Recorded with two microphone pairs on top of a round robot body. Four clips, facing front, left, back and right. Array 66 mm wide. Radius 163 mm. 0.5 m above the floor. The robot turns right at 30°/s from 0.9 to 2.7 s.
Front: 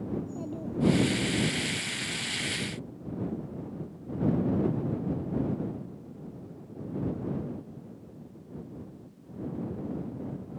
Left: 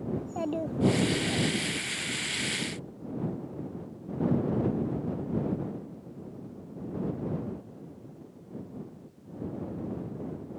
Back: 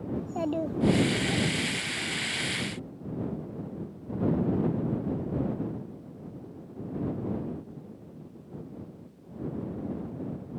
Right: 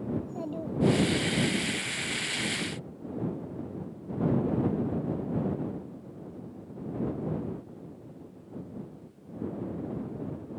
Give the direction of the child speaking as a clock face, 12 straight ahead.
7 o'clock.